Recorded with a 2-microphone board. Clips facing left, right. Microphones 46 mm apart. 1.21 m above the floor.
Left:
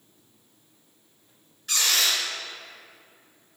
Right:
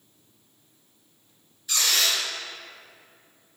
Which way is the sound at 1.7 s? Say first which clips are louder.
Even; 60° left (ahead or behind).